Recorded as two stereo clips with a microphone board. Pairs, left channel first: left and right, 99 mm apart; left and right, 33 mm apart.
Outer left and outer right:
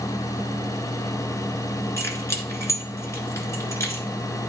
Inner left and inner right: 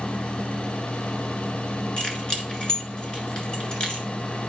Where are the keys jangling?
30° left (ahead or behind), 1.6 m.